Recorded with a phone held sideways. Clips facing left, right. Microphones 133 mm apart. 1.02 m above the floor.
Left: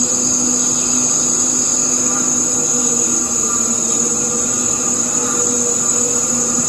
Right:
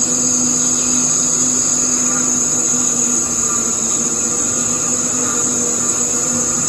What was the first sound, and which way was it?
An insect, 15° left (ahead or behind).